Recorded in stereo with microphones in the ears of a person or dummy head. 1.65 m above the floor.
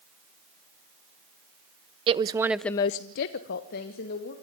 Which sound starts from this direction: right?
A woman speaking, at 2.1 s.